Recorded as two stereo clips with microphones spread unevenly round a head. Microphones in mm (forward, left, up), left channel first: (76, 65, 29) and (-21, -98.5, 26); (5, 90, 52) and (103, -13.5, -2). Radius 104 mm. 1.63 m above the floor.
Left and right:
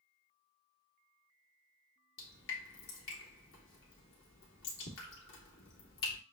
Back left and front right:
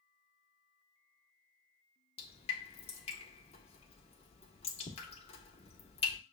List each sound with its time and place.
2.2 s dripping: 95° left, 1.2 m